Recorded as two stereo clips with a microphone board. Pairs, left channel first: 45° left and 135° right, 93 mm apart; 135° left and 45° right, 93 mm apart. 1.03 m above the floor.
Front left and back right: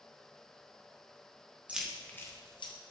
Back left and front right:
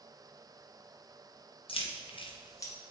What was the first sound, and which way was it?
Keys jangling, 150° left.